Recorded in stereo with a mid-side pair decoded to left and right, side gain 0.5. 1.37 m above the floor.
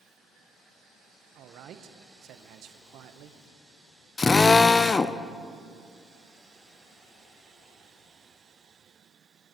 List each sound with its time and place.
1.4 s a man speaking: 65° right, 1.1 m
4.2 s a drill: 30° left, 0.6 m